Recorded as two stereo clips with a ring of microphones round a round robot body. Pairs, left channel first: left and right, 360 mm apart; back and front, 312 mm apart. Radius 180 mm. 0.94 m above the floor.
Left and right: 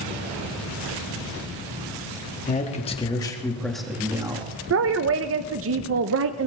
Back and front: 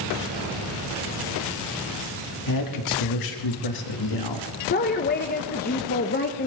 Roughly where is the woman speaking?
Behind right.